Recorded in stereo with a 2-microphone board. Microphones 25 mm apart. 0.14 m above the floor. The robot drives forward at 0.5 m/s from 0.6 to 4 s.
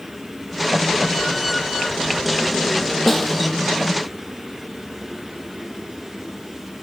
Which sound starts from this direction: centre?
A snare drum, at 3.1 s.